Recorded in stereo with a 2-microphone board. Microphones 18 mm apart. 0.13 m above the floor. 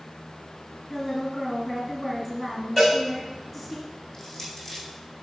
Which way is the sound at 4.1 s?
35° left (ahead or behind).